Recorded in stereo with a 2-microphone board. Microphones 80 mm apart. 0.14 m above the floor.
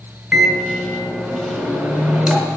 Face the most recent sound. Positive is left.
turn(degrees=-10)  # may be behind; listen again after turning